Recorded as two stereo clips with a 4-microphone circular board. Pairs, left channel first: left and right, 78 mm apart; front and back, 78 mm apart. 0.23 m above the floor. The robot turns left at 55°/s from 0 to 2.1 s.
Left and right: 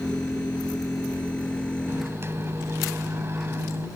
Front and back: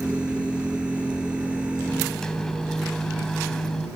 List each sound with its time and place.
1.9 s a microwave: 65° right; by 3.9 s 75° right